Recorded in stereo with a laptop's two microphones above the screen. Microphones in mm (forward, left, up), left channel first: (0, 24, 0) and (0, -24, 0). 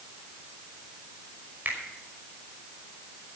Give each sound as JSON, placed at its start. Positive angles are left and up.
{"t": 1.6, "sound": "a finger snap", "side_deg": -40, "distance_m": 5.5}